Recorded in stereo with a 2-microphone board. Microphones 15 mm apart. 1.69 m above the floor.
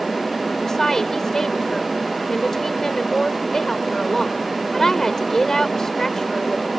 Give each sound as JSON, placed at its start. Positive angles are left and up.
{"t": 0.6, "sound": "a woman speaking", "side_deg": 30}